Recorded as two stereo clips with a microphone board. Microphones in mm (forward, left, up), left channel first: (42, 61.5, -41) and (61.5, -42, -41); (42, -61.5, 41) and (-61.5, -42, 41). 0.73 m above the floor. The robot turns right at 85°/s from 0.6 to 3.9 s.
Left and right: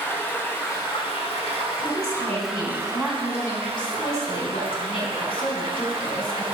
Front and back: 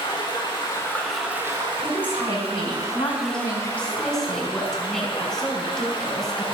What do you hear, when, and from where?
0.0 s running water: 35° left, 4 m; by 6.5 s 45° right, 4 m
1.8 s a woman speaking: 105° right, 5.5 m; by 6.5 s 75° left, 5.5 m